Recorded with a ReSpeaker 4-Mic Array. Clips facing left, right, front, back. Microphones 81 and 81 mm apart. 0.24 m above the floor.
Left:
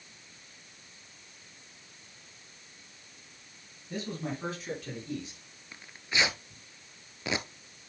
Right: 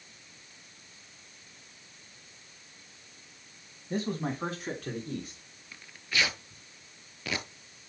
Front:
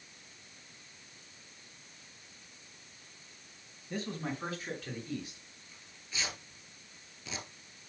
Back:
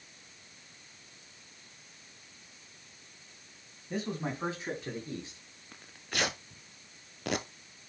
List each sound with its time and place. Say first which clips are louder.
3.9 s a man speaking: right 4 dB, back 2 dB; 115° right, 2 m; by 5.4 s 130° right, 3.5 m
5.7 s tearing paper: even, back 7 dB; 160° left, 0.8 m